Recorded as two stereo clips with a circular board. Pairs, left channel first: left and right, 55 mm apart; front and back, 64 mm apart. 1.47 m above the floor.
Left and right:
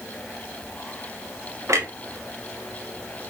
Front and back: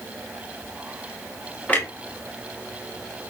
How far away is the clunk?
About 0.8 m.